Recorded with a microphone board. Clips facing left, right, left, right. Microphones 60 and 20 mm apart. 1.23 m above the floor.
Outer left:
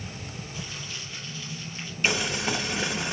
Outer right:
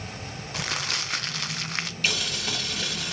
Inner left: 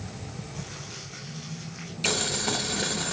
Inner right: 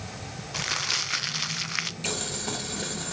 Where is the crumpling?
75° right (ahead or behind), 0.6 m.